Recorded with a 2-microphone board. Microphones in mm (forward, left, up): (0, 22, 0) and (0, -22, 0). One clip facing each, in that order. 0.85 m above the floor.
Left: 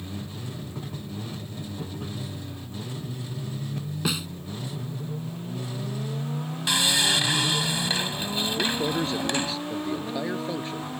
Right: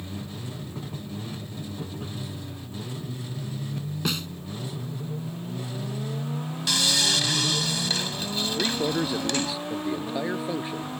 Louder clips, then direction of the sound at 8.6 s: Right 1 dB; 10° right (ahead or behind).